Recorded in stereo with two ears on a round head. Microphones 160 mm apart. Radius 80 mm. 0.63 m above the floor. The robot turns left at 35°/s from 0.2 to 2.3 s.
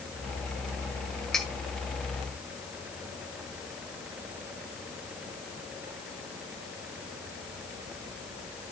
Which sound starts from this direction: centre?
Cutlery clinking, at 1.3 s.